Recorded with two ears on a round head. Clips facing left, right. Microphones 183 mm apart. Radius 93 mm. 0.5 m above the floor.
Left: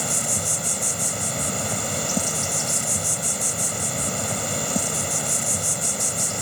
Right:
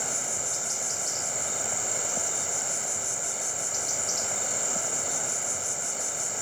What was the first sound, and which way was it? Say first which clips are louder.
An insect: left 7 dB; 65° left (ahead or behind).